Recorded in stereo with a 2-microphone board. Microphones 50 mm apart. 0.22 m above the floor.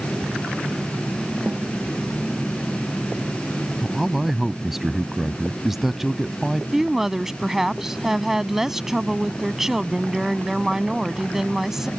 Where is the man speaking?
10° right (ahead or behind).